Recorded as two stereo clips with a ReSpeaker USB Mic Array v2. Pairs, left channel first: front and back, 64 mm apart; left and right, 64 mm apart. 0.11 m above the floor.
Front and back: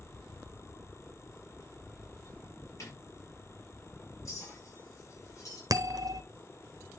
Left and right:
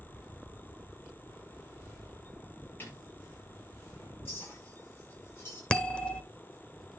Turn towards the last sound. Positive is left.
turn(degrees=165)